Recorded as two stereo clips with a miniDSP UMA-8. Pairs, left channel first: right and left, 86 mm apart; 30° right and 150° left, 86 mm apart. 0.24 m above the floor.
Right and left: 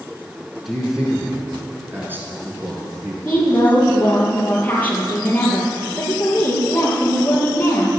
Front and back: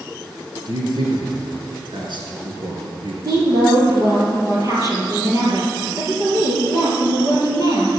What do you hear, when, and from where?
0.7 s a man speaking: 175° left, 3 m; by 3.1 s 140° left, 3.5 m
3.2 s a woman speaking: 160° right, 4.5 m